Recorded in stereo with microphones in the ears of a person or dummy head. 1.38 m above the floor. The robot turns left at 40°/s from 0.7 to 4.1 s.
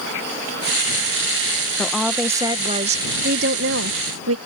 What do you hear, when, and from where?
1.8 s a woman speaking: 5° left; by 4.4 s 85° right